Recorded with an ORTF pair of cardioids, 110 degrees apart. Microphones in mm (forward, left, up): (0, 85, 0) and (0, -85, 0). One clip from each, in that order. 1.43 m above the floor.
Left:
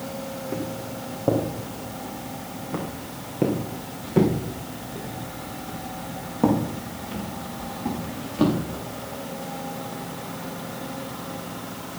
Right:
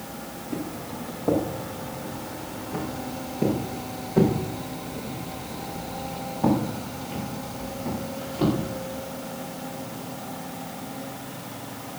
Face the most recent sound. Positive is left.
turn(degrees=55)